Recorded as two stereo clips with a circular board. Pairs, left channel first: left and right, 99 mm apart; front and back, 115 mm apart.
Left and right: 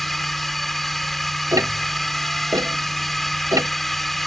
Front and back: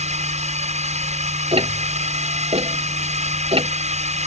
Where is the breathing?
I don't hear breathing.